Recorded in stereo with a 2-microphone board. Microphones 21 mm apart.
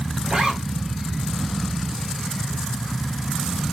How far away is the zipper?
About 1.8 m.